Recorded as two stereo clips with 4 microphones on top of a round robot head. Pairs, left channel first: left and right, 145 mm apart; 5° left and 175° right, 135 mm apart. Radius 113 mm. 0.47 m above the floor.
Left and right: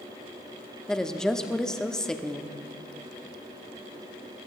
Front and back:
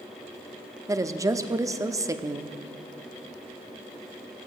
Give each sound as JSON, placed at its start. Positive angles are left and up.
{"t": 0.9, "sound": "a woman speaking", "azimuth_deg": 170, "distance_m": 0.7}